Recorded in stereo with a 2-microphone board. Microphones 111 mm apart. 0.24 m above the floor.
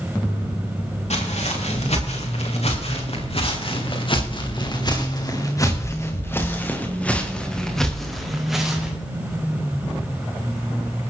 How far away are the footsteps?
About 5.5 m.